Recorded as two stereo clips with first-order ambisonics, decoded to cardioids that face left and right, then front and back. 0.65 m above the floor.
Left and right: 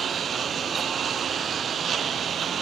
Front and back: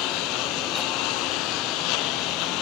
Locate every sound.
0.0 s a lawn mower: 25° right